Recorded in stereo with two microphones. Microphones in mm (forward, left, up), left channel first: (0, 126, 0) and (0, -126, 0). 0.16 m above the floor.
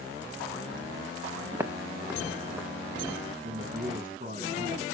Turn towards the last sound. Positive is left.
turn(degrees=-35)  # may be behind; listen again after turning